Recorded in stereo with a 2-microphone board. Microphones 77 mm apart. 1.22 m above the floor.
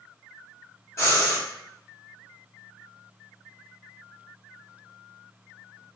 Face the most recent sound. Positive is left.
turn(degrees=40)  # may be behind; listen again after turning